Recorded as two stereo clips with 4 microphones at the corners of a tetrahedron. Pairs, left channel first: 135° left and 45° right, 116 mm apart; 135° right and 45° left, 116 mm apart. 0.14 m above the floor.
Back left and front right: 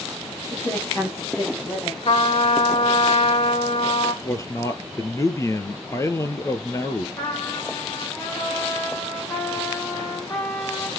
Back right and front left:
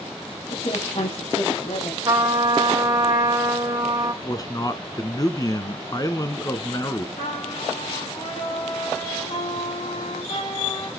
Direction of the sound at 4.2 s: 175° right.